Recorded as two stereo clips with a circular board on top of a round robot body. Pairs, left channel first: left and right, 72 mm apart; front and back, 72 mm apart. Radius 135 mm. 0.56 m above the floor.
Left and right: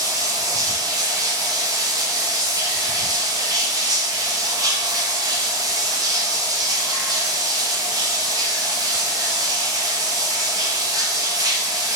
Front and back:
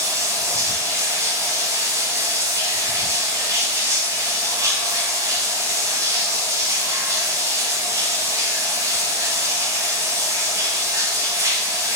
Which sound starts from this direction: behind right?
Running water, at 0.0 s.